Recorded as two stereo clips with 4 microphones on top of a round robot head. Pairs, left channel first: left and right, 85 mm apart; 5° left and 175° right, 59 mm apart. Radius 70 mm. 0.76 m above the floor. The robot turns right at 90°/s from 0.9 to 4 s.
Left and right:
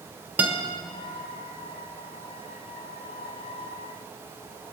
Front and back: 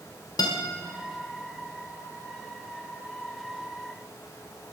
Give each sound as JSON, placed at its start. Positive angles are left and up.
{"t": 0.4, "sound": "a guitar", "azimuth_deg": -20, "distance_m": 1.6}